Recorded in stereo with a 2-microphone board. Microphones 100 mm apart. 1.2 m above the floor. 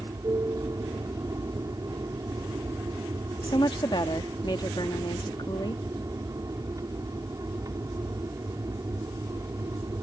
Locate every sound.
0.0 s an aircraft: 35° right (ahead or behind)
3.4 s a woman speaking: 50° left (ahead or behind)